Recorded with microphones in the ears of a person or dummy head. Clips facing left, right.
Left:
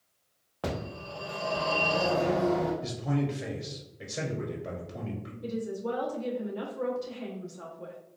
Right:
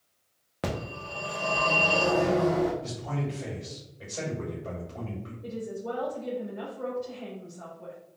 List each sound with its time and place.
0.6 s a phone ringing: 20° right (ahead or behind), 0.6 m
2.8 s a man speaking: 30° left (ahead or behind), 0.9 m
5.4 s a woman speaking: 90° left, 1.2 m